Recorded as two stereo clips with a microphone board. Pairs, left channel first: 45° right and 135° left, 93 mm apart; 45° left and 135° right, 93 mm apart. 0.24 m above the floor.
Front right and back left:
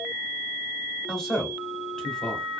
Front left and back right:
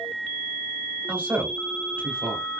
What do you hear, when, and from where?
1.1 s a man speaking: 110° right, 1.0 m